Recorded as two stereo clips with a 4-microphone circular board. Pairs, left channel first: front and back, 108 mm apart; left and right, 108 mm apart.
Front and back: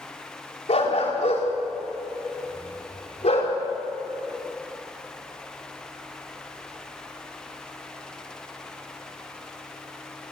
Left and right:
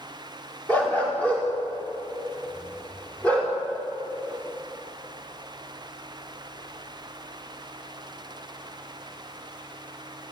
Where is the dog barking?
15° left, 6.5 m; by 3.5 s 10° left, 8 m.